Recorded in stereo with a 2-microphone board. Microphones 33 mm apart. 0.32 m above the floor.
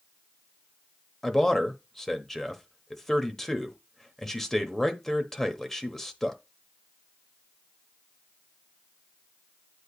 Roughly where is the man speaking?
Centre.